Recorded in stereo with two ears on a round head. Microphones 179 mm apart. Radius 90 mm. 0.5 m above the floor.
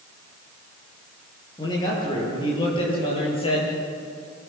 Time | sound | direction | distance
1.6 | a man speaking | 20° left (ahead or behind) | 9 m